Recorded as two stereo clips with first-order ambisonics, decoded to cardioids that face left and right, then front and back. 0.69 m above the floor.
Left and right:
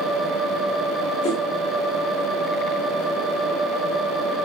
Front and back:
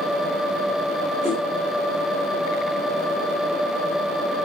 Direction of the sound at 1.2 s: 115° left.